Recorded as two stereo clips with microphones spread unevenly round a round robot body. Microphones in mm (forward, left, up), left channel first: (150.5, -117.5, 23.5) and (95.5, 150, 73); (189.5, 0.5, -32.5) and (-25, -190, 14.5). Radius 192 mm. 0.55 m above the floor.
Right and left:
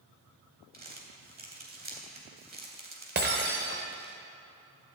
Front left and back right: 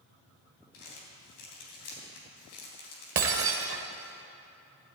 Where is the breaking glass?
165° left, 0.6 m.